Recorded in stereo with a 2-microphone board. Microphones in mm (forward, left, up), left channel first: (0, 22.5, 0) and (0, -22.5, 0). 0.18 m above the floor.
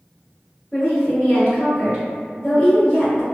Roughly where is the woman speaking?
Left.